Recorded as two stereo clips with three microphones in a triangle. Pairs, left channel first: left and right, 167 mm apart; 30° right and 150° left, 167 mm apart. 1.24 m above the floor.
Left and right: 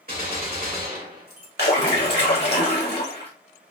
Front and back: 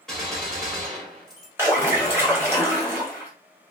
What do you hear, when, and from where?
0.1 s a gunshot: 115° right, 2.0 m
1.6 s a splash: 75° left, 1.7 m